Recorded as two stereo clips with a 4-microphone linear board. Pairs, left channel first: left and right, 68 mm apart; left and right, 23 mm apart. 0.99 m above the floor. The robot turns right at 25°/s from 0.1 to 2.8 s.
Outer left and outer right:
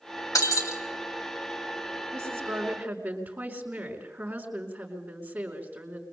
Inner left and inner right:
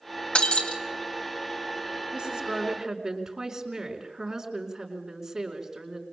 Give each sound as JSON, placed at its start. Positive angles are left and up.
{"t": 0.3, "sound": "breaking glass", "side_deg": 60, "distance_m": 3.0}
{"t": 2.1, "sound": "a woman speaking", "side_deg": -45, "distance_m": 5.0}